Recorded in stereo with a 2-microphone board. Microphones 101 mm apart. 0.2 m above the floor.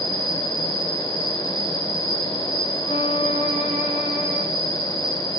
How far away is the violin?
About 9 m.